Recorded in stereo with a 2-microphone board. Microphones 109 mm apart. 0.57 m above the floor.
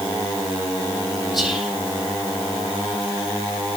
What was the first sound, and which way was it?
Whispering, centre (ahead or behind).